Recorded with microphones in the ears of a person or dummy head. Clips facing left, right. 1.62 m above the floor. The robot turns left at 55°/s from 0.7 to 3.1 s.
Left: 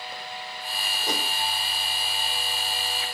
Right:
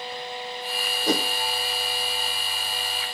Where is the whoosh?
60° right (ahead or behind), 1.2 m; by 1.3 s 75° right (ahead or behind), 1.2 m.